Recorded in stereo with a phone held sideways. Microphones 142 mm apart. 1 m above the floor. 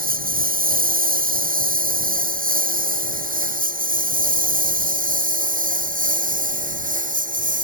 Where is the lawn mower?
85° right; by 7.6 s 70° right (ahead or behind).